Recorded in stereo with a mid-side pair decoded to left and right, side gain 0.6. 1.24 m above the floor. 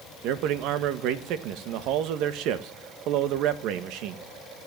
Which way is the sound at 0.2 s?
70° right.